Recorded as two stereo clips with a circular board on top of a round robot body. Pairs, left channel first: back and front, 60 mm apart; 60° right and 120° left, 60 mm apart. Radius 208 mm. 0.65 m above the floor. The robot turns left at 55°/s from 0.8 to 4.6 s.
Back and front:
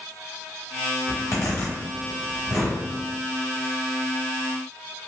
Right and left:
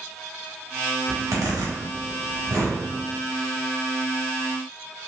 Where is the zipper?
160° left, 1.1 m; by 2.8 s 65° left, 1.1 m.